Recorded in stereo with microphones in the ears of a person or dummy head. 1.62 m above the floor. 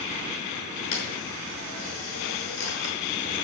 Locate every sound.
0.9 s a camera shutter: 85° left, 6 m